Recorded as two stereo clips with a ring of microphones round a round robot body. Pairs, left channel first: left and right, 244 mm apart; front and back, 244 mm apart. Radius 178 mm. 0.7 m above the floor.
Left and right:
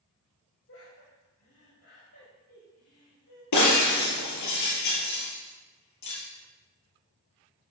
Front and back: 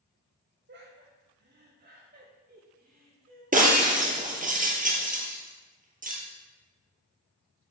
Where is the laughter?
140° left, 5 m; by 3.4 s 130° left, 6.5 m.